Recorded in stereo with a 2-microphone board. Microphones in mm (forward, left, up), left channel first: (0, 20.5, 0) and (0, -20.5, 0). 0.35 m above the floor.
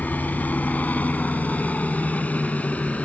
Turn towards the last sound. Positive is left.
turn(degrees=35)  # may be behind; listen again after turning